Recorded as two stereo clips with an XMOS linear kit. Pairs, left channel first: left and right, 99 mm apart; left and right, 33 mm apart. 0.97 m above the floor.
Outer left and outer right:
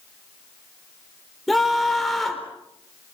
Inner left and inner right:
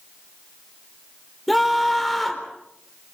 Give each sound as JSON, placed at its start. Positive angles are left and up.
{"t": 1.5, "sound": "a scream", "side_deg": 0, "distance_m": 4.0}